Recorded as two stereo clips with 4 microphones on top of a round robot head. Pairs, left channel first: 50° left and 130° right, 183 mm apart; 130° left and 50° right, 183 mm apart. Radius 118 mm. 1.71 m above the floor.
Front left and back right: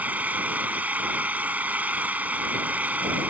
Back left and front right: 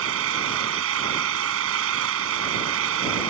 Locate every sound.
0.0 s an engine running: 50° right